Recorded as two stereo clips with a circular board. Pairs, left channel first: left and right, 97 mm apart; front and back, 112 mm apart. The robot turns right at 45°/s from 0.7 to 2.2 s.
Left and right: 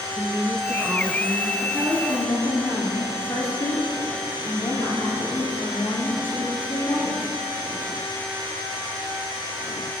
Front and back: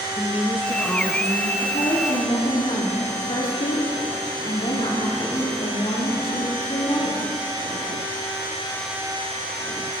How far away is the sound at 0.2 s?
About 1.2 m.